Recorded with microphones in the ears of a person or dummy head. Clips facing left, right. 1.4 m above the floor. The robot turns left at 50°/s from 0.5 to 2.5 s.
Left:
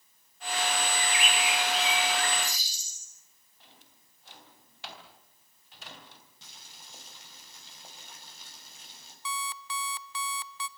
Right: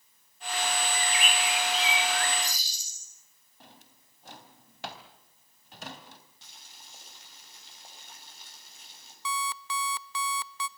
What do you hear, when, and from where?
0.9 s a bird: 70° right, 7.5 m; by 3.1 s 145° right, 7.5 m
3.6 s a drawer: 40° right (ahead or behind), 3 m
6.4 s boiling: 75° left (ahead or behind), 7 m
9.2 s an alarm clock: 45° right (ahead or behind), 0.6 m